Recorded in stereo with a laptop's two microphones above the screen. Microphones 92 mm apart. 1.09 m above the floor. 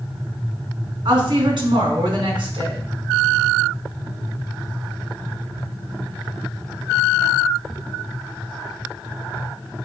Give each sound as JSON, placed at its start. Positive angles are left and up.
{"t": 1.1, "sound": "a woman speaking", "side_deg": -60, "distance_m": 1.8}